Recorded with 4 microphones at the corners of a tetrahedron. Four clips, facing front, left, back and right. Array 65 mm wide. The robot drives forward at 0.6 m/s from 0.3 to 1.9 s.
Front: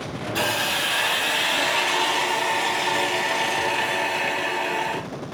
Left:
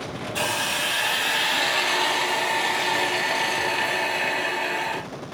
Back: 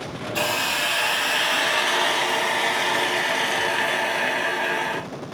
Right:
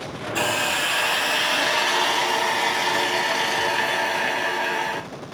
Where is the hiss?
80° right, 1.2 m; by 5.0 s 150° right, 1.4 m.